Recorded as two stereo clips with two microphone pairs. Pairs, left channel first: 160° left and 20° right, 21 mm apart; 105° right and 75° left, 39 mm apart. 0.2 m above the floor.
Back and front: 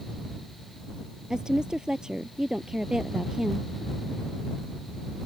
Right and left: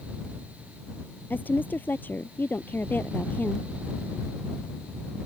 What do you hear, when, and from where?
1.3 s a woman speaking: 75° right